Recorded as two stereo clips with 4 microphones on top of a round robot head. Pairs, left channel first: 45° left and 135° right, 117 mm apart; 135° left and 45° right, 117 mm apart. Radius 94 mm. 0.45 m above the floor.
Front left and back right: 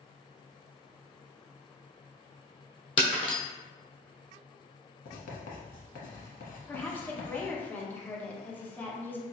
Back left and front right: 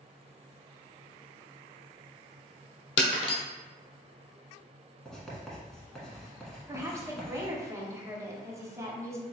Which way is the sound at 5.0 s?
50° left.